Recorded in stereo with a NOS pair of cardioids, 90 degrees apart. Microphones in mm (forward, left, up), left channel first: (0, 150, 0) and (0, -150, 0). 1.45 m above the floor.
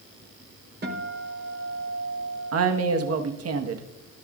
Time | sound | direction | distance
0.8 | a guitar | 35° right | 4.5 m
2.5 | a woman speaking | 55° right | 1.6 m